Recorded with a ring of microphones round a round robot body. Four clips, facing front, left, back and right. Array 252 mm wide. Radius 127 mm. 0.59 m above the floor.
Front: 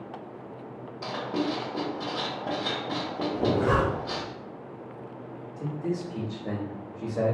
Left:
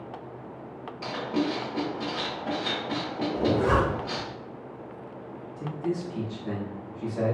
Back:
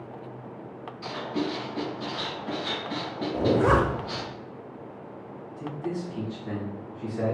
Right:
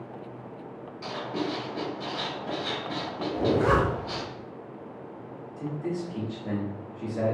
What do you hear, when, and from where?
1.0 s writing: 25° left, 0.8 m
3.3 s a zipper: 165° right, 0.5 m
5.6 s a man speaking: 20° right, 1.1 m